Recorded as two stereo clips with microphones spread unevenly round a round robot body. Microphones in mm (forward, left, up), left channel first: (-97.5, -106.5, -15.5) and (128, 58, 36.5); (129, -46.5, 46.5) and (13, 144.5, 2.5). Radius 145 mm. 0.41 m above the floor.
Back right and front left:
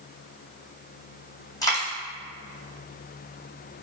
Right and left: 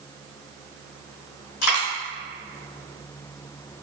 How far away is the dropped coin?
About 1.5 m.